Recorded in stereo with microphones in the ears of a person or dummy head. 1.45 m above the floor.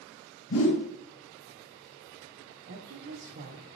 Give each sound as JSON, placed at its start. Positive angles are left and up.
{"t": 0.5, "sound": "a whoosh", "side_deg": 85, "distance_m": 1.8}
{"t": 2.7, "sound": "a woman speaking", "side_deg": -55, "distance_m": 1.2}